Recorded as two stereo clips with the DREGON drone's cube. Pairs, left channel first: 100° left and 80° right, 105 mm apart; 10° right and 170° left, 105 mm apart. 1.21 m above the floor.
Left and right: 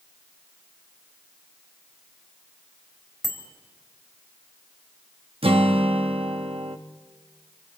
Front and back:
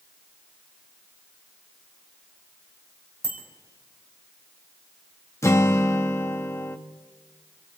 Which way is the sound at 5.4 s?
70° right.